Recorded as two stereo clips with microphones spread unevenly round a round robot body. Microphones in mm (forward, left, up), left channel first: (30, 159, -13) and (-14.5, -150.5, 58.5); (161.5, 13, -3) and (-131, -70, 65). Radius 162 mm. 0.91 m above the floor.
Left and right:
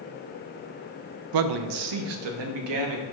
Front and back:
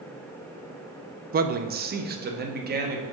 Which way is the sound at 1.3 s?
95° right.